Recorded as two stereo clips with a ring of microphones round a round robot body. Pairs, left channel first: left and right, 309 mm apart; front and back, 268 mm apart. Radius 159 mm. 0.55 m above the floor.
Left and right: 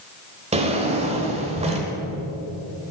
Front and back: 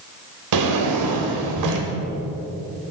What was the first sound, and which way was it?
A drawer, 160° right.